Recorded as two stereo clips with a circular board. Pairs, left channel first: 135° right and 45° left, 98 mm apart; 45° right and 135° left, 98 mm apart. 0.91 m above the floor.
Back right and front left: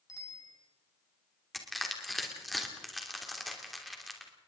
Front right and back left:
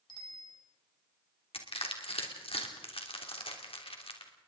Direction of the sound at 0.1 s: 80° right.